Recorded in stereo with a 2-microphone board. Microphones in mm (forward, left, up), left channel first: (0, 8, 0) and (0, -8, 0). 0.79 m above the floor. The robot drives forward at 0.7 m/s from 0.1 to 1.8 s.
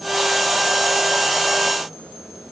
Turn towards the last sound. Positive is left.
No sound to turn to.